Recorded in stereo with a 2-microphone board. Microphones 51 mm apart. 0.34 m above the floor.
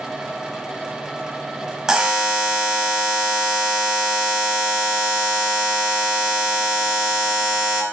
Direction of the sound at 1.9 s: 15° right (ahead or behind).